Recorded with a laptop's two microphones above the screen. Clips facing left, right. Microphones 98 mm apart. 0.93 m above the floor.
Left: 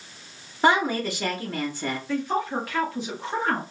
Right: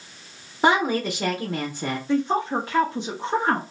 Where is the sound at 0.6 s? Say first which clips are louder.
Right 1 dB; 15° right (ahead or behind), 0.6 m.